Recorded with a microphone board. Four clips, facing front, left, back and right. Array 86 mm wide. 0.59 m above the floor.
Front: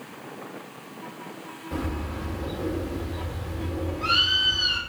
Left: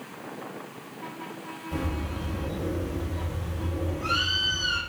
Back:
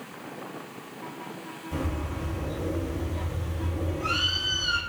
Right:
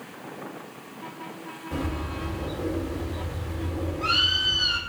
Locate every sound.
1.7 s a bird: 45° right, 2.0 m